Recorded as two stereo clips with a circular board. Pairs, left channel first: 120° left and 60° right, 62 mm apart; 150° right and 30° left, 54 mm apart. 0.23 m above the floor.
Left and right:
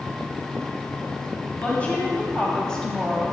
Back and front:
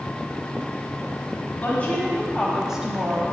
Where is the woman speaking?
175° left, 1.7 m; by 3.3 s 35° left, 1.5 m.